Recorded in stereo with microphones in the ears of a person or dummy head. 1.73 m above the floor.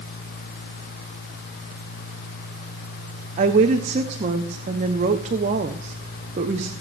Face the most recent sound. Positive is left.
turn(degrees=-40)  # may be behind; listen again after turning